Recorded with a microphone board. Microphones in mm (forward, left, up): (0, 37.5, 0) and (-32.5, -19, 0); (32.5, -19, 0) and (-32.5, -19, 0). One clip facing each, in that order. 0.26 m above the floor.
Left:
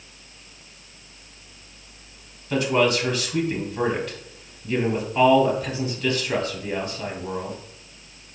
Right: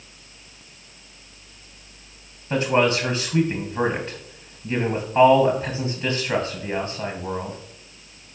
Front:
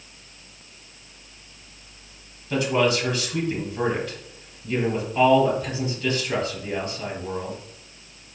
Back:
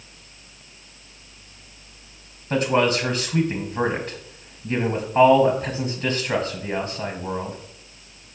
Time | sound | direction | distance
2.5 | a man speaking | 165° right | 1.3 m